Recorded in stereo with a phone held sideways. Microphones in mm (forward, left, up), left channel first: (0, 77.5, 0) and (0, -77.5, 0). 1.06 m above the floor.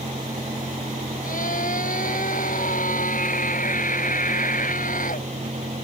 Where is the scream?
60° left (ahead or behind).